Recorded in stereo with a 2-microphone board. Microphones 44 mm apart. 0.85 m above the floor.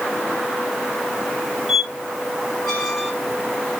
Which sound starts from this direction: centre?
A squeak, at 1.7 s.